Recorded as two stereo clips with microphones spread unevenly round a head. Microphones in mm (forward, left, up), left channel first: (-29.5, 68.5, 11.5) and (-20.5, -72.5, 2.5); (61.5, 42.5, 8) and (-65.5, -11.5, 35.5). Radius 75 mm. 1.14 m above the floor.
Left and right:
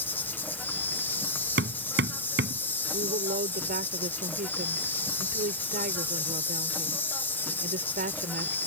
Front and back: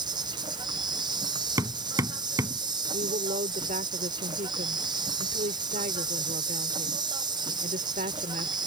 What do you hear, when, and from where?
0.0 s an insect: 165° left
1.6 s hammering: 90° right
2.9 s a woman speaking: 115° right